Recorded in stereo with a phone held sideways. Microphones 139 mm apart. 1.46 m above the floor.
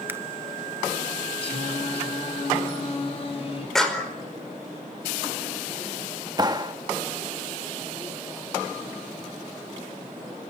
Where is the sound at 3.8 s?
5° left (ahead or behind), 5 m.